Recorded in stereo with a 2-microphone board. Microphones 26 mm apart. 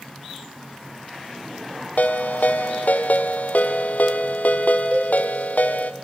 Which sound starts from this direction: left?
A ringtone, at 2.0 s.